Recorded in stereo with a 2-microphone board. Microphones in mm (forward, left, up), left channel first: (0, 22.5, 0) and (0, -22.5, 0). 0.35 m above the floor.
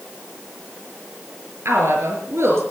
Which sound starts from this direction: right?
A woman speaking, at 1.6 s.